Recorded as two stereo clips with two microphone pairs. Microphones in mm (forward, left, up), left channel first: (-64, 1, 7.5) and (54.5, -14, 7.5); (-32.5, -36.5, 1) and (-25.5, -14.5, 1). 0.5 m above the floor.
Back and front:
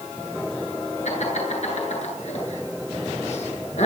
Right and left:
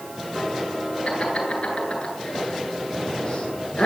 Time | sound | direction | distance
1.1 | laughter | 160° right | 9 m